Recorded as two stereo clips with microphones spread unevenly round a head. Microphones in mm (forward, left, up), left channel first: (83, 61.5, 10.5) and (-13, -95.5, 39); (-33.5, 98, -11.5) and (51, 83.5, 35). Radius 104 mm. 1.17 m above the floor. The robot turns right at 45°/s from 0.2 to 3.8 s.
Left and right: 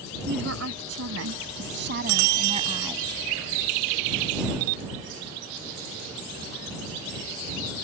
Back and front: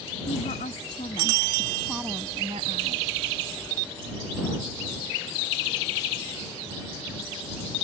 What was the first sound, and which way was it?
A woman speaking, 165° right.